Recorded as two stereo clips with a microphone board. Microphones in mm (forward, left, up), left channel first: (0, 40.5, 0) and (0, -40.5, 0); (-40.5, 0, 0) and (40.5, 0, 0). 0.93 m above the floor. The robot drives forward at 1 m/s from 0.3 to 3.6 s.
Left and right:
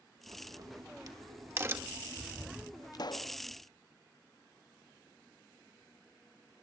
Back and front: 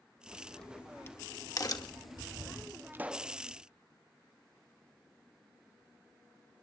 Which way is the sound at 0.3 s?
80° right.